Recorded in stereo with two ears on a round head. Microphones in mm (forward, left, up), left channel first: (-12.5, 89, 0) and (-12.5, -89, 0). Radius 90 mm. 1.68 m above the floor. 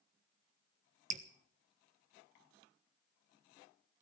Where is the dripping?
35° right (ahead or behind), 1.3 m.